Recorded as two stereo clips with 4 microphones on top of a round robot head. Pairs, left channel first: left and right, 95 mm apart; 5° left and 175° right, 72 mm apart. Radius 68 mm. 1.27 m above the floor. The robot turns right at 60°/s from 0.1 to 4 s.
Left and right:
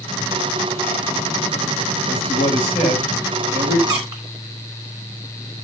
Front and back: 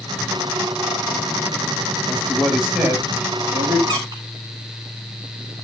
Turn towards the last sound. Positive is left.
turn(degrees=-145)